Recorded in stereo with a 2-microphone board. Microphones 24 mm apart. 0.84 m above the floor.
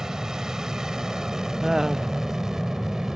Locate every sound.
0.0 s an aircraft: 25° right (ahead or behind)
1.6 s laughter: 25° right (ahead or behind)